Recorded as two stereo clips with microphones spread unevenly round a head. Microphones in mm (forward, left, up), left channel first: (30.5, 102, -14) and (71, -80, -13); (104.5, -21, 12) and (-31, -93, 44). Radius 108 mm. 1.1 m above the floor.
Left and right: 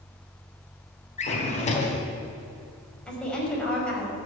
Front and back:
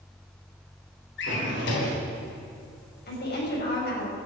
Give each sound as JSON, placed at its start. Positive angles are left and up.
{"t": 1.2, "sound": "a drawer", "azimuth_deg": 50, "distance_m": 3.0}
{"t": 3.1, "sound": "a woman speaking", "azimuth_deg": 20, "distance_m": 5.5}